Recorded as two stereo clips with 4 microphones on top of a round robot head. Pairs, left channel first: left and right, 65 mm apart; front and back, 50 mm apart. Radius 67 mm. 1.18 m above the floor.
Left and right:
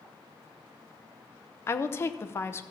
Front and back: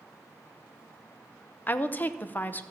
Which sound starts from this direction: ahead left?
A woman speaking, at 1.7 s.